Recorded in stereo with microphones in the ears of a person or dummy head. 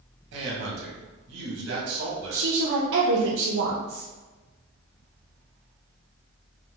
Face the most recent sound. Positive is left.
turn(degrees=-80)